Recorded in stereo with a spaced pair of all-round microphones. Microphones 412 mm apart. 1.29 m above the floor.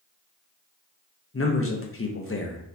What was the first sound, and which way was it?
A man speaking, 30° left (ahead or behind).